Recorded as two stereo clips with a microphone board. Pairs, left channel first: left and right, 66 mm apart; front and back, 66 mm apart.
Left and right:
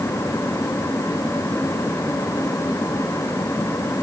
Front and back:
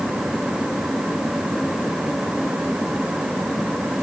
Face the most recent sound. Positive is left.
No sound to turn to.